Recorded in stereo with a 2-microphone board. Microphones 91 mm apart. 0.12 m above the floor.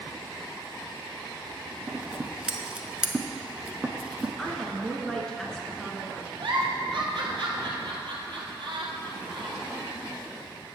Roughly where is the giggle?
Right.